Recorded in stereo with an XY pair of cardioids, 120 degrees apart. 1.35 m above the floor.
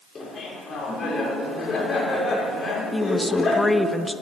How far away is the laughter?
About 5 m.